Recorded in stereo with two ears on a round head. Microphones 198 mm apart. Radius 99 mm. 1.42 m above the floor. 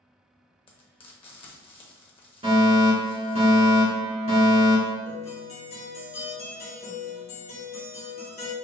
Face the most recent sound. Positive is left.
turn(degrees=30)  # may be behind; listen again after turning